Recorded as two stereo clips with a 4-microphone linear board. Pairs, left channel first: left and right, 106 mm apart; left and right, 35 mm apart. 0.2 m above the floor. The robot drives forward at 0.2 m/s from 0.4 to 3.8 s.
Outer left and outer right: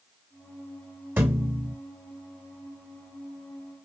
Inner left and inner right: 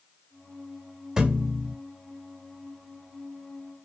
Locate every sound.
1.2 s a thud: 20° right (ahead or behind), 0.9 m; by 1.8 s 25° right (ahead or behind), 0.8 m